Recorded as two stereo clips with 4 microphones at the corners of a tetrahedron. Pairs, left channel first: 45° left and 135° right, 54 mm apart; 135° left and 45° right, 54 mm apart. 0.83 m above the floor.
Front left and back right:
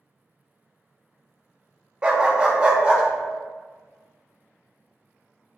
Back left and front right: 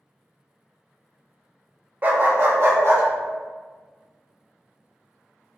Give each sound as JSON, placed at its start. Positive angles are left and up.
{"t": 2.0, "sound": "a dog barking", "azimuth_deg": -75, "distance_m": 0.5}